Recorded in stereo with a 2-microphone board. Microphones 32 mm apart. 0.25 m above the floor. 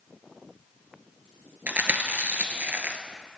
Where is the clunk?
I don't hear a clunk.